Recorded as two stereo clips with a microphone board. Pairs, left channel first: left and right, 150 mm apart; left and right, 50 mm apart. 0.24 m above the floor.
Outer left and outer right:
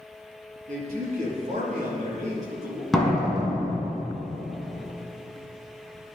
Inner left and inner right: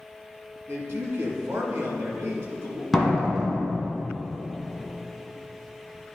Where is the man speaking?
60° right (ahead or behind), 2.0 m.